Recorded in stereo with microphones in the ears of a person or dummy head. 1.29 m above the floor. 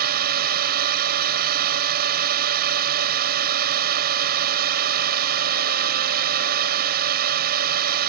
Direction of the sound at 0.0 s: 55° right (ahead or behind).